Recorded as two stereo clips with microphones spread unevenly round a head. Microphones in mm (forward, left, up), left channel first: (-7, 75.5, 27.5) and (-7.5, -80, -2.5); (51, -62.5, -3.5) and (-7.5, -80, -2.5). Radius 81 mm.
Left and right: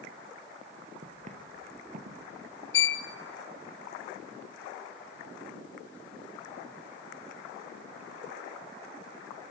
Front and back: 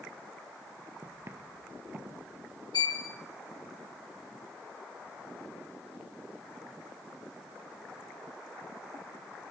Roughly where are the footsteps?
Behind right.